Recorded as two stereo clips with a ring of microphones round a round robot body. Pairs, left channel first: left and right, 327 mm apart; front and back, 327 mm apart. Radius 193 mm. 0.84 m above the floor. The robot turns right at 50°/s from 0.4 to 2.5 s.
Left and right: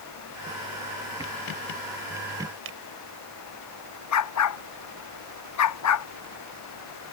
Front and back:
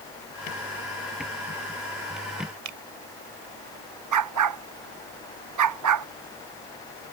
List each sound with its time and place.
2.6 s a finger snap: 145° right
4.1 s a dog barking: 135° left